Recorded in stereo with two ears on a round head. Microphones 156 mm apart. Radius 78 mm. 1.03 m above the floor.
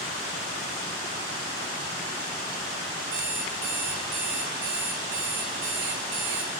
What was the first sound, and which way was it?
An alarm clock, 80° right.